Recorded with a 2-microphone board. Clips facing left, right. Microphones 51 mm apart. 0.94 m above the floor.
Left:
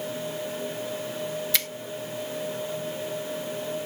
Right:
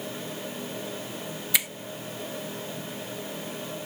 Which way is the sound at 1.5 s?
15° right (ahead or behind).